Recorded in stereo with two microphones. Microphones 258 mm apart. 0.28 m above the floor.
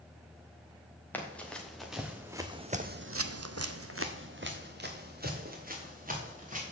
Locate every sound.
1.1 s running footsteps: 5° left (ahead or behind), 2.5 m; by 6.7 s 30° right (ahead or behind), 4 m